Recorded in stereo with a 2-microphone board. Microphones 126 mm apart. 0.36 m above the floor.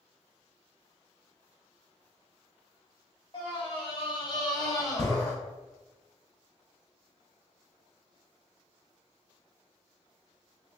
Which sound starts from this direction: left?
A scream, at 3.3 s.